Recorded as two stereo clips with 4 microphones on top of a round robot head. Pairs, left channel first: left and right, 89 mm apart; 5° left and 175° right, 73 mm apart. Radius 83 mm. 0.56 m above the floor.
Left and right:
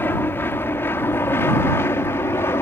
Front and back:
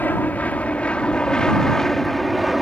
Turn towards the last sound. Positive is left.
turn(degrees=100)